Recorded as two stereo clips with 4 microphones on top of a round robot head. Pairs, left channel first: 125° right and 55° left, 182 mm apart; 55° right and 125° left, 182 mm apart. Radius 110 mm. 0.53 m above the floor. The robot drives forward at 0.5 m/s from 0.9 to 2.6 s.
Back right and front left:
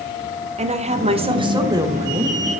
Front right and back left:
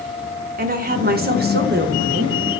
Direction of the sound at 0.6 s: 100° left.